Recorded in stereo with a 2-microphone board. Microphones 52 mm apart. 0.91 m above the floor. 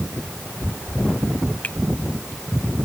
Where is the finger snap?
25° left (ahead or behind).